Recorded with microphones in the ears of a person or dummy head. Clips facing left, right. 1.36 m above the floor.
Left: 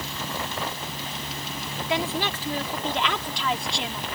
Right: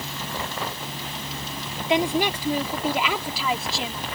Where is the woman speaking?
20° right (ahead or behind); by 4.0 s centre (ahead or behind).